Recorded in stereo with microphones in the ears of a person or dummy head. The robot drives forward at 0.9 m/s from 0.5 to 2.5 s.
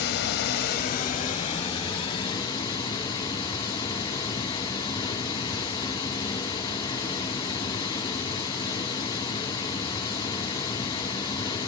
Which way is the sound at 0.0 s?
60° left (ahead or behind).